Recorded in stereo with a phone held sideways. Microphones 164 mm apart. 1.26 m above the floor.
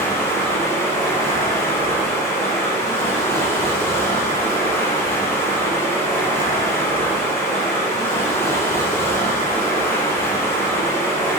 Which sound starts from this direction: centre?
Running water, at 0.0 s.